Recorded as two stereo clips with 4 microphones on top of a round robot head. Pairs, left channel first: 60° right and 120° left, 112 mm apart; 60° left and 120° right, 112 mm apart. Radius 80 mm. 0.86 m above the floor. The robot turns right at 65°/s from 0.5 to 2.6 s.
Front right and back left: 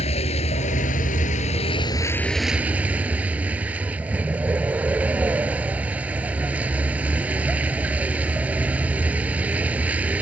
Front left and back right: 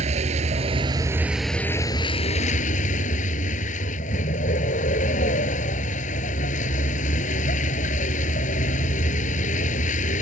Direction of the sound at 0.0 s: 95° right.